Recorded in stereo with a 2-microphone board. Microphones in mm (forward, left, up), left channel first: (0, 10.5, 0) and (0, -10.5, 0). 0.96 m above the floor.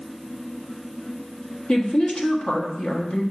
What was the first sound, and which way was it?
A woman speaking, 80° left.